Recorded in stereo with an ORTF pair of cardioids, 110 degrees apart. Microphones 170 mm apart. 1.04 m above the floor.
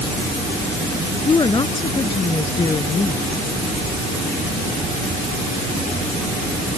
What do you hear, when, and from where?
1.2 s a woman speaking: 25° left